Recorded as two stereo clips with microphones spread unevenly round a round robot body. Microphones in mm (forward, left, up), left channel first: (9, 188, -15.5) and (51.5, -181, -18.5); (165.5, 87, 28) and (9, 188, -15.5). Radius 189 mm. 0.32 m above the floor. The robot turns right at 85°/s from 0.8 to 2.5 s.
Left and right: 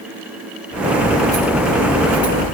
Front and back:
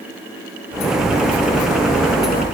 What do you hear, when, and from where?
Only background noise.